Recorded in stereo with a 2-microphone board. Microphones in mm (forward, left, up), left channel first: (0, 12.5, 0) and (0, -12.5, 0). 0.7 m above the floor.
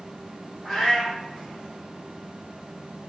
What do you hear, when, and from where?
0.6 s a cat meowing: 10° left (ahead or behind), 1.4 m